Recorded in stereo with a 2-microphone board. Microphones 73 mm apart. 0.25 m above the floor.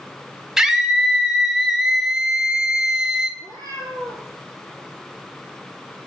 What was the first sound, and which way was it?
A scream, 10° right (ahead or behind).